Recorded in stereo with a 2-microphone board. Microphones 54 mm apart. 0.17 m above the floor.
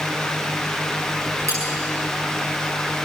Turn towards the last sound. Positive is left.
turn(degrees=-65)  # may be behind; listen again after turning